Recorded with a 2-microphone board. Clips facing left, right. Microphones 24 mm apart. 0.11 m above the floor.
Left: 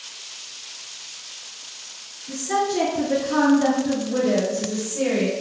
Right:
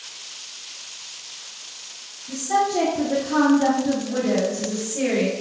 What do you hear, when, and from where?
2.3 s a woman speaking: 30° left (ahead or behind), 1.5 m; by 5.3 s 25° right (ahead or behind), 1.6 m